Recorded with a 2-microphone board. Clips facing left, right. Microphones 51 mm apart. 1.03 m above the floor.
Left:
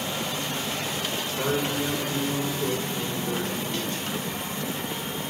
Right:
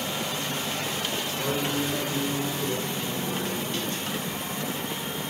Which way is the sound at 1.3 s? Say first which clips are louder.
Left 2 dB; 75° left (ahead or behind).